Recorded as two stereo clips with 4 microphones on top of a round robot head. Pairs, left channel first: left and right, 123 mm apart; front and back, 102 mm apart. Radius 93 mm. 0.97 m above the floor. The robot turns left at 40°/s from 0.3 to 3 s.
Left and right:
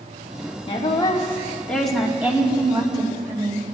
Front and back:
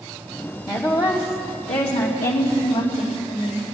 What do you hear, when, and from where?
0.7 s a woman speaking: 50° left, 2.5 m; by 3.6 s 45° right, 2.5 m